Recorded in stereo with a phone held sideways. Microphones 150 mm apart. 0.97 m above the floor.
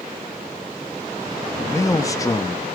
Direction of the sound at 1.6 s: 20° left (ahead or behind).